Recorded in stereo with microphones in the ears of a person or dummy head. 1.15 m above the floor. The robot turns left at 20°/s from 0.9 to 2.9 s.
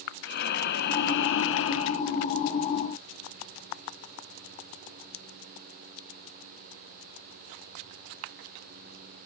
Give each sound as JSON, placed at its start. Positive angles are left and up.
{"t": 0.2, "sound": "breathing", "side_deg": 55, "distance_m": 0.6}